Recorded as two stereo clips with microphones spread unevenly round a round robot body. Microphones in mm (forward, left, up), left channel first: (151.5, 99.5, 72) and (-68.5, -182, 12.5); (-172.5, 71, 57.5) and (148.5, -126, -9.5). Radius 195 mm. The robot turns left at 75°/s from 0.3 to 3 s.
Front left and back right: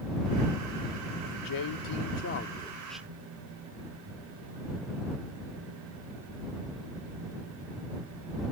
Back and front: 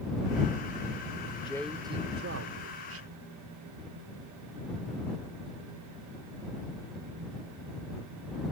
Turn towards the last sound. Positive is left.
turn(degrees=-50)